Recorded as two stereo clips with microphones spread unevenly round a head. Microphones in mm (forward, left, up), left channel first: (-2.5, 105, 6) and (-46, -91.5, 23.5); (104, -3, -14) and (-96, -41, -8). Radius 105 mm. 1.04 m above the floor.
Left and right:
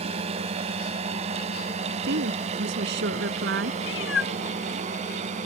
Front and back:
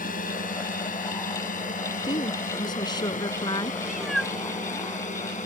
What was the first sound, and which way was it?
A drone, 40° right.